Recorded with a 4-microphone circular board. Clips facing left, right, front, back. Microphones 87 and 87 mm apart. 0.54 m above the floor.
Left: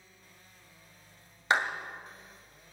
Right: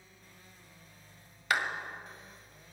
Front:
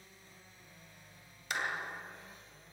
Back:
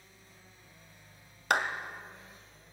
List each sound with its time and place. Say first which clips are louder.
1.5 s a clap: left 3 dB, back 8 dB; 155° left, 2 m